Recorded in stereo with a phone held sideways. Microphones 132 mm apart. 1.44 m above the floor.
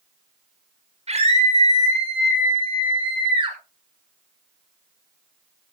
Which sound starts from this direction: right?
A scream, at 1.1 s.